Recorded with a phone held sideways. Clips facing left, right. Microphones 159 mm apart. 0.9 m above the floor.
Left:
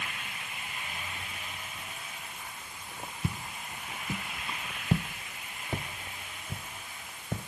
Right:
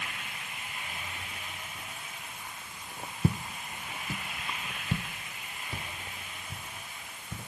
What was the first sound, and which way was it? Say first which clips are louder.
Footsteps: right 7 dB; 40° right (ahead or behind).